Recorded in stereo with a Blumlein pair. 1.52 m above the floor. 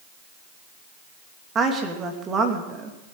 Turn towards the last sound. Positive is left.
turn(degrees=-20)